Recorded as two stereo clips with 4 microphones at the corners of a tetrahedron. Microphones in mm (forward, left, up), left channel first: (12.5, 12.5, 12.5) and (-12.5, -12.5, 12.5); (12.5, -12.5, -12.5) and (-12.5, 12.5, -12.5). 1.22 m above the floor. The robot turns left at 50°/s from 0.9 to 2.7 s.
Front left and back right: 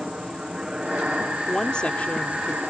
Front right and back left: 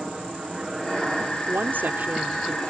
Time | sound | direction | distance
0.0 | a helicopter | 160° right | ?
1.5 | a woman speaking | 125° left | ?